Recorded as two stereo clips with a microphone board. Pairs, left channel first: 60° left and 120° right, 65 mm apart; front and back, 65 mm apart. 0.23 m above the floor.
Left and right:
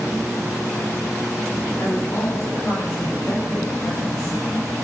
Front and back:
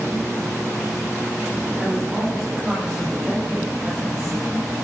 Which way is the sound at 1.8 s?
100° left.